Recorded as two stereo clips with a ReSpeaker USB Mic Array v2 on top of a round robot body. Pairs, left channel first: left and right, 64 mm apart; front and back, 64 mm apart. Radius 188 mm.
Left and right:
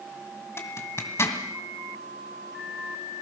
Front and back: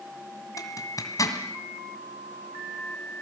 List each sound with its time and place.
0.6 s a zipper: 40° left, 2 m